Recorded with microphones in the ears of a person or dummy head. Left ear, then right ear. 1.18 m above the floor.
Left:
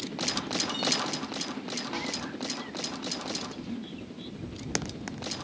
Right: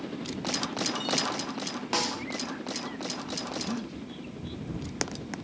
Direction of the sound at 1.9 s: 75° right (ahead or behind).